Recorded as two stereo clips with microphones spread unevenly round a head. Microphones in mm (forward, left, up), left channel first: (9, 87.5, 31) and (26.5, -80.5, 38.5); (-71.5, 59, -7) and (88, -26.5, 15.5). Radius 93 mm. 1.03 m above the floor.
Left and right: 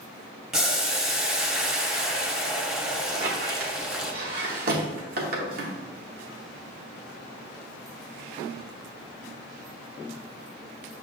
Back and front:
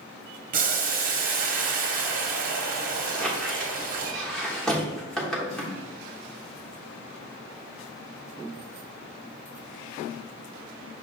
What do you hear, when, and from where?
0.5 s boiling: 5° left, 0.7 m
3.1 s a squeak: 115° right, 0.8 m